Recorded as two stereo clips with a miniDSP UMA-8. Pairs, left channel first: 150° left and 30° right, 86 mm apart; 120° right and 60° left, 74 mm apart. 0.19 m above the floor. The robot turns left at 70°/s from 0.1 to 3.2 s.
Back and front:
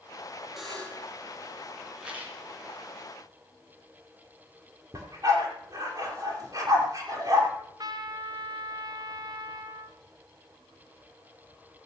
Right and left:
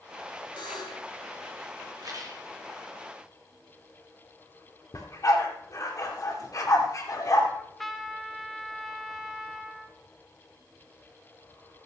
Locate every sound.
0.6 s a buzzer: 115° right, 2 m; by 1.1 s 155° right, 2 m
1.9 s a rattle: 55° left, 3 m; by 2.4 s 25° left, 3 m
4.9 s a dog barking: 75° right, 2.5 m
7.6 s a trumpet: 30° right, 1.0 m